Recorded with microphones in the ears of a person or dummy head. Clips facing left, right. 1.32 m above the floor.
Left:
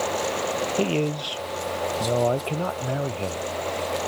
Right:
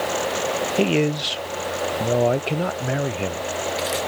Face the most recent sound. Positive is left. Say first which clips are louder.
# right 6 dB
turn(degrees=-20)  # may be behind; listen again after turning